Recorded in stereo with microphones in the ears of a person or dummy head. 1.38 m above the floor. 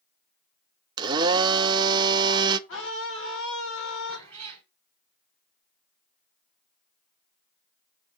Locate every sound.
1.0 s a blender: 20° right (ahead or behind), 0.6 m
2.7 s a scream: 80° left, 2 m
4.1 s a cat meowing: 10° left (ahead or behind), 1.5 m